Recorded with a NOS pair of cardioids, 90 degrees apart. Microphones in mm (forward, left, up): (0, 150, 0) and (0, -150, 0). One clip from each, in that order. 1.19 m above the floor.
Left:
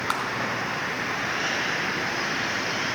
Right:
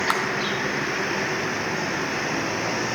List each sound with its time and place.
0.1 s a clap: 20° right, 4 m